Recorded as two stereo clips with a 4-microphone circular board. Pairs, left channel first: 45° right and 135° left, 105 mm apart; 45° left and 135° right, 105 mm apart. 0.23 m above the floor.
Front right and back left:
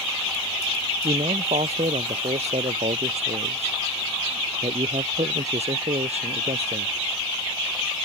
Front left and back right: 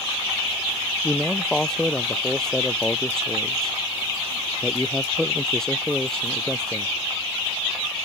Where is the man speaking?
130° left.